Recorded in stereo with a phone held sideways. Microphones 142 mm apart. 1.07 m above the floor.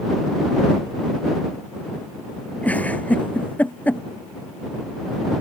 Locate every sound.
2.6 s a giggle: 10° left (ahead or behind)